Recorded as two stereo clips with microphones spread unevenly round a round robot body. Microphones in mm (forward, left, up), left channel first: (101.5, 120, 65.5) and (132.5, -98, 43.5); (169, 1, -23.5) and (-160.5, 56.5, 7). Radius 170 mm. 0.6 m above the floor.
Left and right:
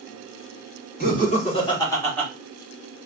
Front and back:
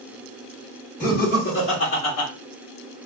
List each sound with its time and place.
1.0 s laughter: 50° left, 2 m; by 2.3 s 5° left, 2 m